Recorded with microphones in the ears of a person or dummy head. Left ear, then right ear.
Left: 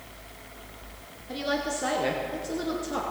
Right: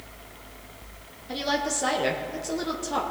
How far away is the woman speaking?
About 0.9 m.